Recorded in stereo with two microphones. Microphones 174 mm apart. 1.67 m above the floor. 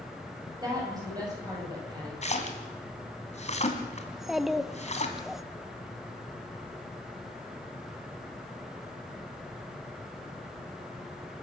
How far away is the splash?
About 2.5 m.